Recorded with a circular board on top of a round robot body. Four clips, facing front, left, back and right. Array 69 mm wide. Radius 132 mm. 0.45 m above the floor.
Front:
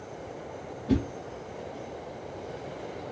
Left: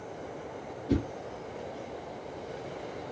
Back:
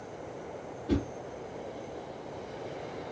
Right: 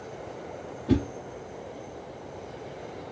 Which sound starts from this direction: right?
A whoosh, at 0.9 s.